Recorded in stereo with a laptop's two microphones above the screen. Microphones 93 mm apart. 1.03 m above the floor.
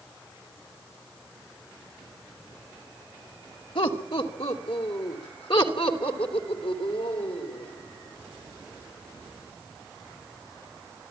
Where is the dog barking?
No dog barking in this recording.